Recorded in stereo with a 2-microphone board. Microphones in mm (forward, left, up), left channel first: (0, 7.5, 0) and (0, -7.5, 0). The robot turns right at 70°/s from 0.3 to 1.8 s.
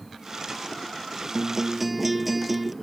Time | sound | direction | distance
1.4 | a guitar | 45° right | ?